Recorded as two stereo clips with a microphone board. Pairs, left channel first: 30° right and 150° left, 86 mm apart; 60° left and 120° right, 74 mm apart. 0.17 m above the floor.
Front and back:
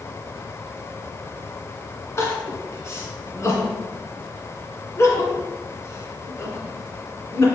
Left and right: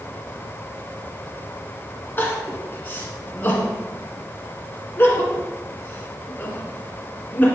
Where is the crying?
10° left, 1.9 m.